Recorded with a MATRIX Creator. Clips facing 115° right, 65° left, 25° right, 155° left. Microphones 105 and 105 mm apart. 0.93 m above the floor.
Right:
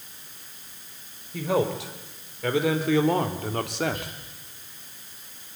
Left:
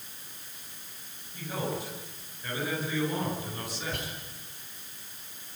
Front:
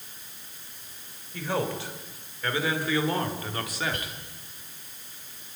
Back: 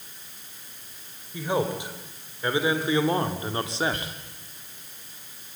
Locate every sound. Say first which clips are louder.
1.3 s a man speaking: right 9 dB, back 3 dB; 125° right, 4.5 m; by 4.1 s 140° right, 2.5 m
3.9 s whispering: right 2 dB, back 1 dB; 95° left, 7.5 m